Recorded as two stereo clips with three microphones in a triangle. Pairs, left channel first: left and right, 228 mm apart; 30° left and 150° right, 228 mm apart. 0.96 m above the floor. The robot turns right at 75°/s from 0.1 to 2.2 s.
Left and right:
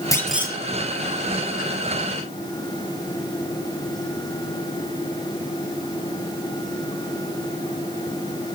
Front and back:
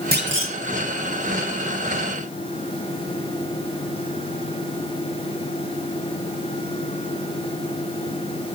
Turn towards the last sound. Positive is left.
turn(degrees=-40)